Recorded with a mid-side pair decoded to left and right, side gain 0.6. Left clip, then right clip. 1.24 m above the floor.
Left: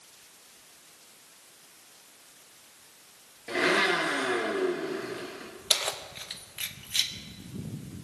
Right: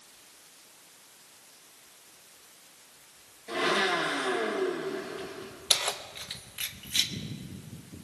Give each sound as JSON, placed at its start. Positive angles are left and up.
{"t": 3.5, "sound": "a blender", "azimuth_deg": 40, "distance_m": 4.5}
{"t": 5.7, "sound": "keys jangling", "azimuth_deg": 0, "distance_m": 1.0}